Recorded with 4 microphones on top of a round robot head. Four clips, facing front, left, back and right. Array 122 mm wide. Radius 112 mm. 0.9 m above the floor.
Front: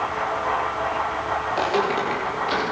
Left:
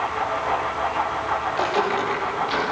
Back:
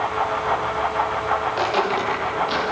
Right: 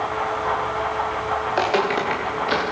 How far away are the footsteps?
About 9 m.